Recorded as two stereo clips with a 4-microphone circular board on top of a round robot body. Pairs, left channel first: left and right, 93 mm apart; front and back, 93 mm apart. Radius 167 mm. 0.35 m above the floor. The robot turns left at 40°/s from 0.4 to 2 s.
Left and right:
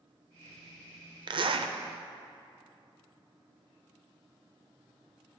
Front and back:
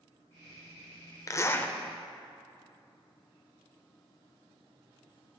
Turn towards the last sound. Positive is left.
turn(degrees=-85)